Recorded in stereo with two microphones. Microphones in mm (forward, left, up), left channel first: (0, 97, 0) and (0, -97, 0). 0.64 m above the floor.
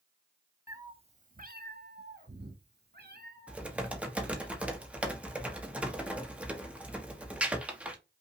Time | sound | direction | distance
0.7 | a cat meowing | 15° right (ahead or behind) | 0.6 m
3.5 | typing on a keyboard | 5° right (ahead or behind) | 0.9 m